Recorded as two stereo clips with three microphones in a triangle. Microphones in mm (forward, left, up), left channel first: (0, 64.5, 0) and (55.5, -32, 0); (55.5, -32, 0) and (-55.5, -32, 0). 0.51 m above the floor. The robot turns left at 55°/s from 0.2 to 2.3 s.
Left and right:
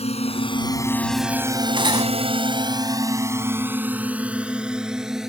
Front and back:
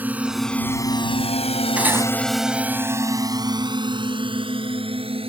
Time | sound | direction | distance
0.0 | a drone | 105° left | ?
1.8 | cutlery clinking | 100° right | ?